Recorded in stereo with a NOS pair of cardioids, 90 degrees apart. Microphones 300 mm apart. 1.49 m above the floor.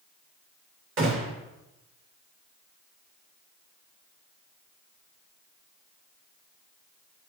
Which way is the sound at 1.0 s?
45° right.